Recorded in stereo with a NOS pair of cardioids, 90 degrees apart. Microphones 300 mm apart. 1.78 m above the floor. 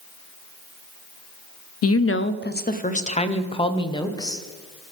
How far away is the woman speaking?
About 0.6 m.